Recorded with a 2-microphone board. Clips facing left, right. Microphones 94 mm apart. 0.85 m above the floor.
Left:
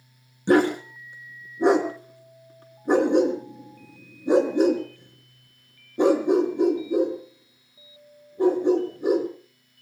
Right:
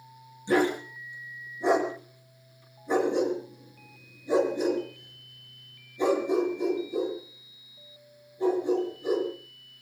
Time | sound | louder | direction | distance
0.5 | a dog barking | left 5 dB | 65° left (ahead or behind) | 3 m